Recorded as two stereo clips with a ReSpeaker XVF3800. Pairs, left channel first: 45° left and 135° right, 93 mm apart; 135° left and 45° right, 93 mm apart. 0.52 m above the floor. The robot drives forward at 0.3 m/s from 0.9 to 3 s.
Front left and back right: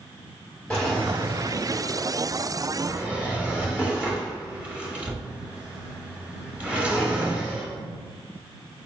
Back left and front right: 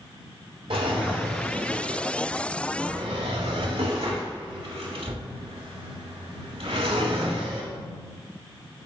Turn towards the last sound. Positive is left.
turn(degrees=-55)